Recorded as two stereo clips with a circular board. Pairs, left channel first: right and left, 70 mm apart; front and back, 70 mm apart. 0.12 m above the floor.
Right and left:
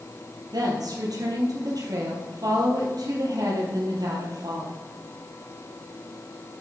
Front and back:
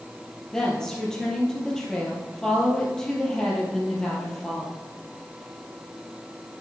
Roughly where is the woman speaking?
Left.